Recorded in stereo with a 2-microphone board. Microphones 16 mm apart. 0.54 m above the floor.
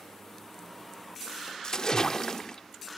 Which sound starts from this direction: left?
A splash, at 1.6 s.